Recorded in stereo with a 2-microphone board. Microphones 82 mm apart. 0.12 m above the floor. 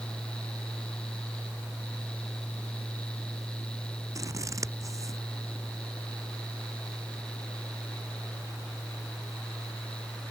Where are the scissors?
40° right (ahead or behind).